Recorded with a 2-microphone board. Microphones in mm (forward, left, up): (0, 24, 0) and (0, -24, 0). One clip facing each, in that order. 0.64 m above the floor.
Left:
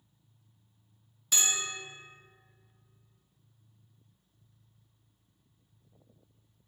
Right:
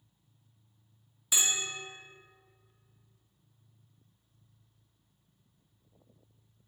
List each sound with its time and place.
1.3 s a bell: 10° right (ahead or behind), 0.7 m